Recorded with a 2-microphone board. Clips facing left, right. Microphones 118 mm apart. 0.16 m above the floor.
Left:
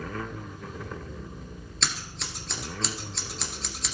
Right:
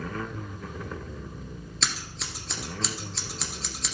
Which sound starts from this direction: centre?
Scissors, at 1.8 s.